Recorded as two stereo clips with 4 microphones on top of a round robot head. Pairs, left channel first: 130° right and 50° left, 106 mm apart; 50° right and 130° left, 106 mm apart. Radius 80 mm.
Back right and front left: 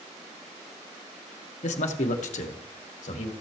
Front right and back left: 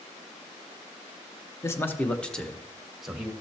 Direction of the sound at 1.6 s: 115° right.